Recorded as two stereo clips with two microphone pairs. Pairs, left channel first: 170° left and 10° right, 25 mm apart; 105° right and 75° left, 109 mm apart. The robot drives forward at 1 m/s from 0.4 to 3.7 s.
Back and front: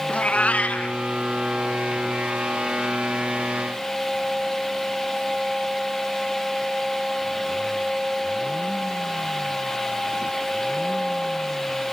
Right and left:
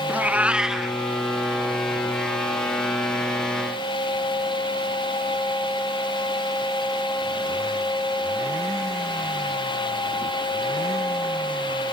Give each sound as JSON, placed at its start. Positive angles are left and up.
{"t": 0.1, "sound": "a cat meowing", "azimuth_deg": 150, "distance_m": 0.8}